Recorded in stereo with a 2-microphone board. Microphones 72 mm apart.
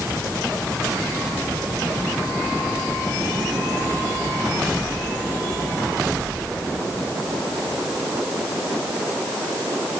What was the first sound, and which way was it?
Only background noise.